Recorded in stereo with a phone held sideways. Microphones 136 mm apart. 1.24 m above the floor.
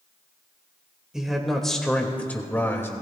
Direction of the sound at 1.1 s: 5° right (ahead or behind).